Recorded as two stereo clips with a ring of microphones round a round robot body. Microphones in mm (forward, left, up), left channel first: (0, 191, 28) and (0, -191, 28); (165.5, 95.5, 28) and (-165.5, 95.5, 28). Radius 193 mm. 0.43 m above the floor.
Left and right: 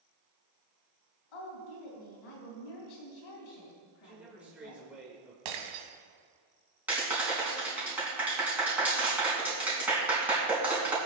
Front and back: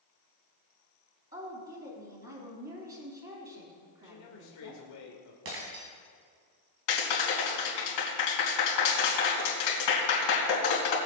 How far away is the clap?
About 3.5 m.